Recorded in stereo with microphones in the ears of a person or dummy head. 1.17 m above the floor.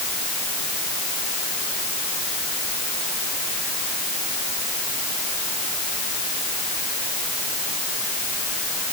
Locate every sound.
Only background noise.